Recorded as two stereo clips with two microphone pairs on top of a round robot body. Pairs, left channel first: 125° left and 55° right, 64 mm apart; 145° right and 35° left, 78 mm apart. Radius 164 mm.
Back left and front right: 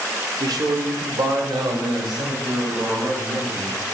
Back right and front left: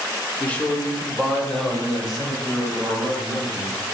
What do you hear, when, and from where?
0.4 s a man speaking: 75° right, 2.5 m; by 3.8 s 45° right, 6 m